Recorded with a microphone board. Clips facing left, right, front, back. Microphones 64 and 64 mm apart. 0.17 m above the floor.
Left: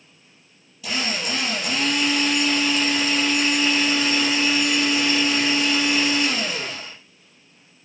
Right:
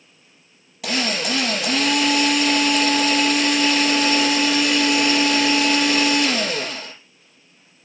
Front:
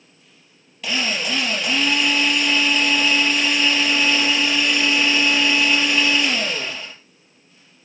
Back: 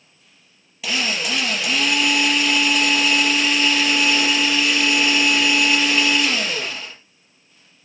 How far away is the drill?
About 4 m.